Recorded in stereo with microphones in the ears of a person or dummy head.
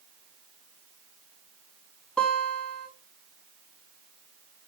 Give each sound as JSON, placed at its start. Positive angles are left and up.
{"t": 2.2, "sound": "a guitar", "side_deg": 5, "distance_m": 4.5}